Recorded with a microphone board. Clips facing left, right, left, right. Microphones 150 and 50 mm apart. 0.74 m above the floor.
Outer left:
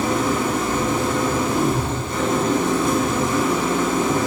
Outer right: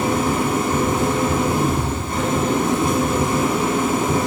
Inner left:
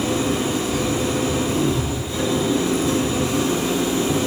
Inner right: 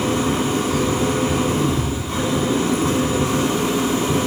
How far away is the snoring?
I don't hear snoring.